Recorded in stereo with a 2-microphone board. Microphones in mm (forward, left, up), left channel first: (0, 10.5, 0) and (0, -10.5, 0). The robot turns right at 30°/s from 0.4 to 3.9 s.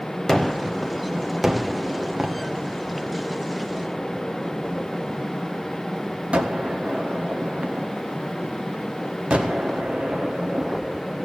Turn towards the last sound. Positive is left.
turn(degrees=-80)